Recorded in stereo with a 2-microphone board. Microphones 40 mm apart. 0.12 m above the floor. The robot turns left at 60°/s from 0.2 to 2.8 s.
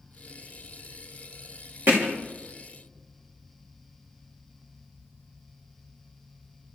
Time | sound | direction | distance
1.9 | hammering | 85° right | 3 m